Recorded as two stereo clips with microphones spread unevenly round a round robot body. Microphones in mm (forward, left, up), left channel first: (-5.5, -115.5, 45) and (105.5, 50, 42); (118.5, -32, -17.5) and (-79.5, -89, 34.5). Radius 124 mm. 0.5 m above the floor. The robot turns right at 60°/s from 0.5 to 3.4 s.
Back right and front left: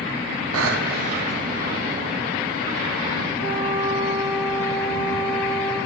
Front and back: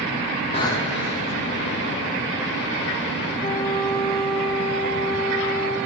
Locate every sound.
0.5 s breathing: 85° left, 1.2 m; by 1.4 s 140° left, 1.2 m
3.4 s a flute: 80° left, 3 m